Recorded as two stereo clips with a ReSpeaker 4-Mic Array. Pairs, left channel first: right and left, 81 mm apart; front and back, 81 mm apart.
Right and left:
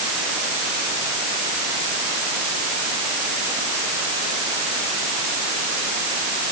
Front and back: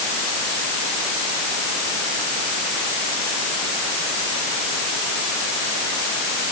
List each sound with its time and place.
Only background noise.